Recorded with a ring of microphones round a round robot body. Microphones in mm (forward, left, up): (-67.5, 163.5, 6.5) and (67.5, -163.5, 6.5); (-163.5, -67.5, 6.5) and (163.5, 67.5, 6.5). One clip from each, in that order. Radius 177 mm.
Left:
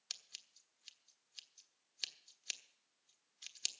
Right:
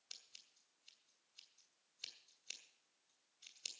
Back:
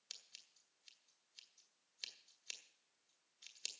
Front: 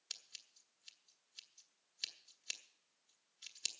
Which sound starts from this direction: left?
Scissors, at 0.1 s.